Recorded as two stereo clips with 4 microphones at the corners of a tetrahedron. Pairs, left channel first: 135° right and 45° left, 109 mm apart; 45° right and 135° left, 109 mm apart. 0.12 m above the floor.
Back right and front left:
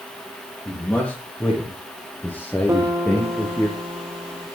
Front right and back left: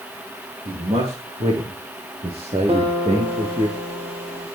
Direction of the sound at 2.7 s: 110° left.